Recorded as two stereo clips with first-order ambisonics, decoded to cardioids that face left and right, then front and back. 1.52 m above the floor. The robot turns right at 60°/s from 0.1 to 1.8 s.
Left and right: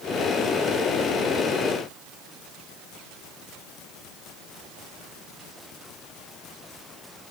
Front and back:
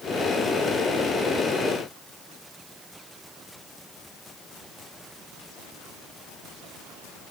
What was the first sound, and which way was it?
Only background noise.